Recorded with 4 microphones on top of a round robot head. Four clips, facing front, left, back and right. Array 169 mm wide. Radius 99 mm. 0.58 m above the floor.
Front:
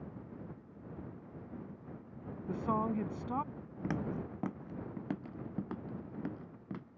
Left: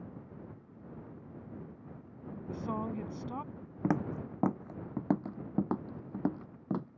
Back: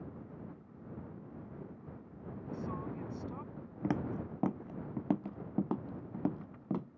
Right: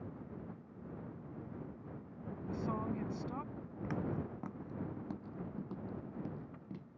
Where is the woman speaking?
20° left.